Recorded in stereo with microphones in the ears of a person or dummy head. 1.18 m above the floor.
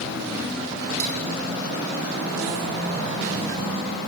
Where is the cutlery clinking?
85° right, 8.5 m.